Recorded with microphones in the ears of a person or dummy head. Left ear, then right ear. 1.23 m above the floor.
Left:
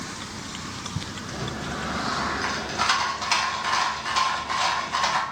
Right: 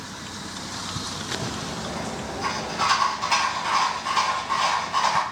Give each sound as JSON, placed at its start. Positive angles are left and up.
{"t": 1.3, "sound": "a rattle", "side_deg": 20, "distance_m": 0.6}